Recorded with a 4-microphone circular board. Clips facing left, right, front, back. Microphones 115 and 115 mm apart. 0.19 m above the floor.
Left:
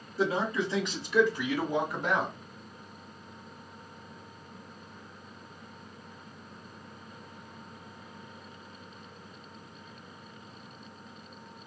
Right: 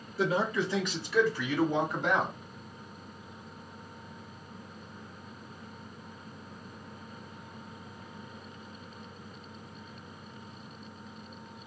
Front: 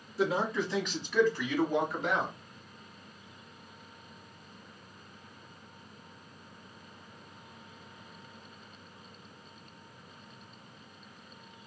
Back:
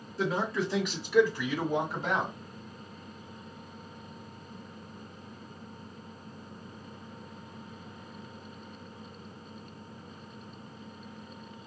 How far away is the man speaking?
About 1.6 m.